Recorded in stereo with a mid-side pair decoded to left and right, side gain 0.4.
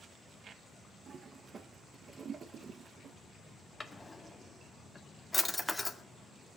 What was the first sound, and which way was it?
A toilet flushing, 50° right.